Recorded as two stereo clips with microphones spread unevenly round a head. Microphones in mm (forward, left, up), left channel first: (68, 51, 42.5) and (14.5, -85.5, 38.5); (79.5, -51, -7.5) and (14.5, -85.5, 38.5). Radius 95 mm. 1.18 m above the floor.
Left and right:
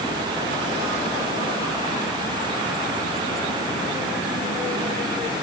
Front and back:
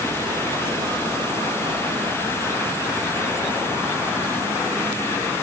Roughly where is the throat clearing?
No throat clearing in this recording.